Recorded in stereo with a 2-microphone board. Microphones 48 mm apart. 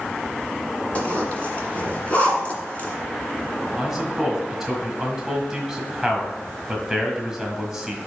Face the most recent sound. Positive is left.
turn(degrees=-10)  # may be behind; listen again after turning